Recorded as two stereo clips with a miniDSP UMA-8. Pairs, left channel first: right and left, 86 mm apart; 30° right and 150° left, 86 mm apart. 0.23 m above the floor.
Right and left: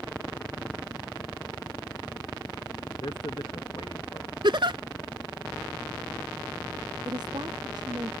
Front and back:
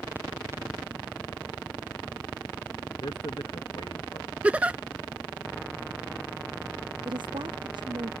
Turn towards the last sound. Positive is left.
turn(degrees=125)